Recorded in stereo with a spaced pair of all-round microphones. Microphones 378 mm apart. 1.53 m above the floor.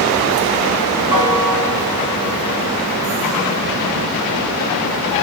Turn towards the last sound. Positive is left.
turn(degrees=-80)